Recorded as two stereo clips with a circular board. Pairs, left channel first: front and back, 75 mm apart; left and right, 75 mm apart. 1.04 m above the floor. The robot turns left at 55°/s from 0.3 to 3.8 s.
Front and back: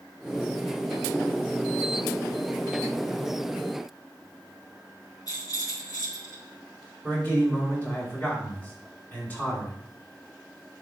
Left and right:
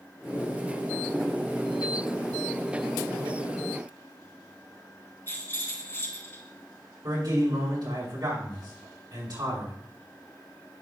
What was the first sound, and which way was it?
A rattle, 30° left.